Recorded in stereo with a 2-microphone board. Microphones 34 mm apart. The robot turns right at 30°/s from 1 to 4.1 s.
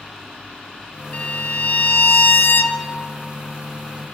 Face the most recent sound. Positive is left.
turn(degrees=130)